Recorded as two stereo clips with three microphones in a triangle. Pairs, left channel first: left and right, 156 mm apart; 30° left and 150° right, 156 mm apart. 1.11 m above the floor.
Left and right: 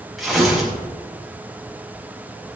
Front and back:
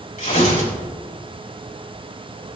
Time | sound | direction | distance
0.2 | tearing paper | straight ahead | 5.5 m